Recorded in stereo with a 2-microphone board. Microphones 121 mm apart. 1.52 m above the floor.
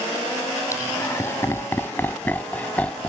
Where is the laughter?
25° left (ahead or behind); by 3.1 s 10° left (ahead or behind).